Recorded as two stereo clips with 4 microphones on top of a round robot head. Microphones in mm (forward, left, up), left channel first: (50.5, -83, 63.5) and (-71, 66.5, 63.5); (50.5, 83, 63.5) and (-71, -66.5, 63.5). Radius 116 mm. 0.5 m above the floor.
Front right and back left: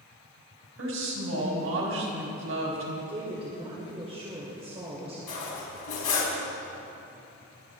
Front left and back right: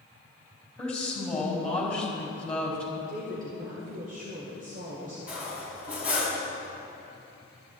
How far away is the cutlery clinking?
About 3 m.